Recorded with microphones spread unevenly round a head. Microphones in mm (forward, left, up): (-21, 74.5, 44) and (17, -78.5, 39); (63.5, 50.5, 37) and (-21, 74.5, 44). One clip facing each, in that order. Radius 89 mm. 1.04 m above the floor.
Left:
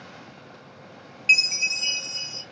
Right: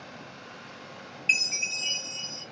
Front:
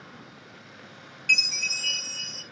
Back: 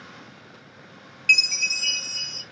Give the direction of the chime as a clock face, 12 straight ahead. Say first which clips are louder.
Left 3 dB, back 4 dB; 7 o'clock.